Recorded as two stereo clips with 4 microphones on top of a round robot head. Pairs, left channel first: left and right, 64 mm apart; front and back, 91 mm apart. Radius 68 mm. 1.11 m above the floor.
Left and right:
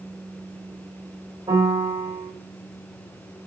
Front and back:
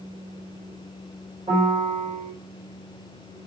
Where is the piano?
130° right, 4 m.